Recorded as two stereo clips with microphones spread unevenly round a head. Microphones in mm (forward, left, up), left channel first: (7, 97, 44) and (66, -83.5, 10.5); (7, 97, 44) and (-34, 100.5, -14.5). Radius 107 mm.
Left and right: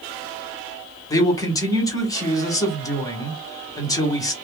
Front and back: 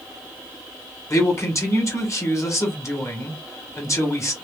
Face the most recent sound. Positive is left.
turn(degrees=30)